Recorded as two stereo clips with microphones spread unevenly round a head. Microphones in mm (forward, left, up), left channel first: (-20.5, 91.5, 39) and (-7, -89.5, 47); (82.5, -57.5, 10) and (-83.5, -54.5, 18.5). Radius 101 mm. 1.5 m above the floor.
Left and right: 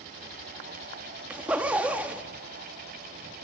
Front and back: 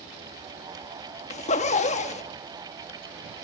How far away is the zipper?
About 1.0 m.